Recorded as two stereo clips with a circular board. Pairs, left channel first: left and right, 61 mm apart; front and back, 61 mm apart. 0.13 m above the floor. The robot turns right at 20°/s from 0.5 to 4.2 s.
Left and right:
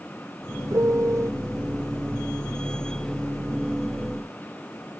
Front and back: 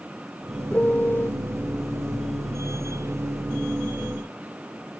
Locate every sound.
0.7 s a piano: 65° right; by 1.3 s 50° right